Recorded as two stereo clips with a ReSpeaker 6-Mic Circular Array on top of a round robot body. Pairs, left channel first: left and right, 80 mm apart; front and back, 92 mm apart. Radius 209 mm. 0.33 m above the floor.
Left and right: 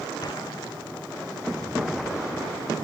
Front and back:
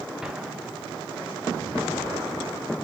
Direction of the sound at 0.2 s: 100° left.